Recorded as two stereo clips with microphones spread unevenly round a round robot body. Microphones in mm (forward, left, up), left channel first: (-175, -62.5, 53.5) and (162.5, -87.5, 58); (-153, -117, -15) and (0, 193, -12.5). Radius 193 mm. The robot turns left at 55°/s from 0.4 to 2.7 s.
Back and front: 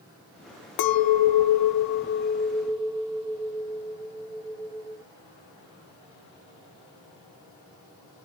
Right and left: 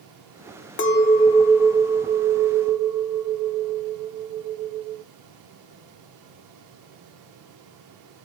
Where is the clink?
170° right, 0.7 m; by 5.0 s 85° left, 0.7 m.